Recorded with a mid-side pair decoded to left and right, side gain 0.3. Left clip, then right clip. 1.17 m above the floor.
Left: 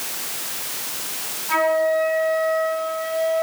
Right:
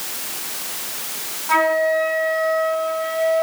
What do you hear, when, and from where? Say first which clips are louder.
1.5 s a flute: right 2 dB; 45° right, 9 m